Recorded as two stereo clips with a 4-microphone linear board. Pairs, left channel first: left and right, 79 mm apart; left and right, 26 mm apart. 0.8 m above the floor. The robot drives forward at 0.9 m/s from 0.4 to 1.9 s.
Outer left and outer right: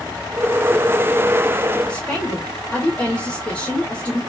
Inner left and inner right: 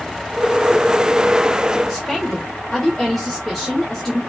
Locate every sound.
1.9 s a woman speaking: 15° left (ahead or behind), 1.2 m